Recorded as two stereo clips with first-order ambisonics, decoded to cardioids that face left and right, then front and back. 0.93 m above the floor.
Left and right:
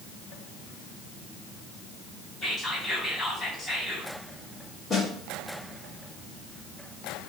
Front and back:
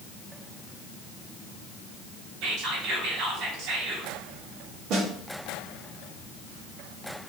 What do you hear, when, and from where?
2.4 s whispering: 165° left, 1.3 m
4.9 s a snare drum: 155° left, 1.0 m